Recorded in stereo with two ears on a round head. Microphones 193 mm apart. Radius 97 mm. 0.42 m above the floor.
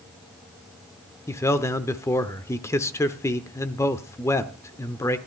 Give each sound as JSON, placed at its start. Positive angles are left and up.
{"t": 1.3, "sound": "a man speaking", "side_deg": 15, "distance_m": 0.7}